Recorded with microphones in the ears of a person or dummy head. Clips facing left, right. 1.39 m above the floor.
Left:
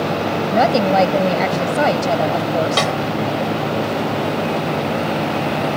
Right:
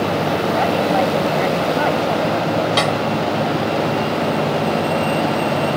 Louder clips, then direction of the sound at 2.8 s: Right 1 dB; centre (ahead or behind).